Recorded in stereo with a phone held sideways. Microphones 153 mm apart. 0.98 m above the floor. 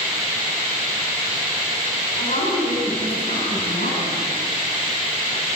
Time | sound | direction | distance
2.2 | a woman speaking | 60° left (ahead or behind) | 8 m